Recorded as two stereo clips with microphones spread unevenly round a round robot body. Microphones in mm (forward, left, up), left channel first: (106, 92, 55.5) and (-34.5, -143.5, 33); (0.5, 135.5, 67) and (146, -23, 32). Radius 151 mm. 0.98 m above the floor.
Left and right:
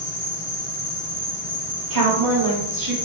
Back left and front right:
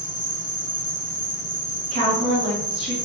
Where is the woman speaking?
110° right, 1.9 m.